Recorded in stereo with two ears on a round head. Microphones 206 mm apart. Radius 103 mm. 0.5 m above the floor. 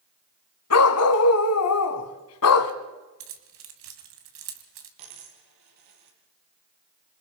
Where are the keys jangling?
65° right (ahead or behind), 2.5 m.